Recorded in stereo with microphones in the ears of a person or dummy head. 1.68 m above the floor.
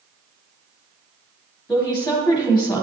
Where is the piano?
I don't hear a piano.